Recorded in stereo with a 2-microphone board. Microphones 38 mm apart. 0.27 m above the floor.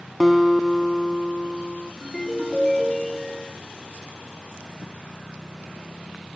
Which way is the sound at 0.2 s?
5° right (ahead or behind).